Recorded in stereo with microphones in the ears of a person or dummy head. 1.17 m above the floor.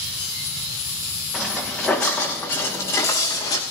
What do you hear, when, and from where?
1.3 s footsteps: 5° right (ahead or behind), 4.5 m; by 3.6 s 20° left (ahead or behind), 5.5 m